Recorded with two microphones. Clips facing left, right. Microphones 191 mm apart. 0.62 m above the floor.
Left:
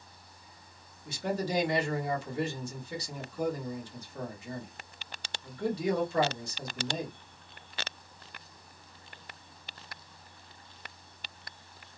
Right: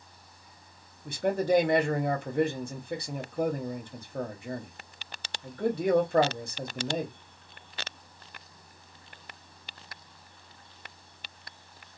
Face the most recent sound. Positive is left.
turn(degrees=-55)  # may be behind; listen again after turning